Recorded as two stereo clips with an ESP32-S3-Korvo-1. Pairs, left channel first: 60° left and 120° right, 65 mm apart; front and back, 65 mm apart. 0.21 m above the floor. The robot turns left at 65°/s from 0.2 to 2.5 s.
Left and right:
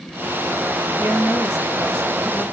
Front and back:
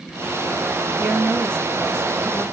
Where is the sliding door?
I don't hear a sliding door.